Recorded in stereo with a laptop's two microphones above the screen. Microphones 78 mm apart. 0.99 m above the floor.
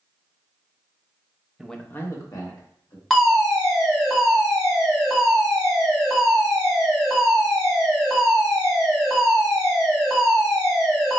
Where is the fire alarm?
5° left (ahead or behind), 1.8 m.